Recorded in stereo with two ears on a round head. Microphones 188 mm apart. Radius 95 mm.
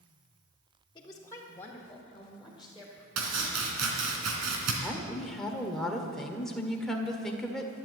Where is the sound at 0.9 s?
20° left (ahead or behind), 1.3 m; by 3.1 s 5° right (ahead or behind), 2.5 m.